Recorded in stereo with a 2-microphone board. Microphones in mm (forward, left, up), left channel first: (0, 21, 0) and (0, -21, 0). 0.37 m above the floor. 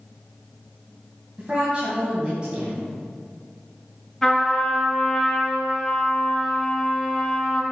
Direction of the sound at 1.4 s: 25° right (ahead or behind).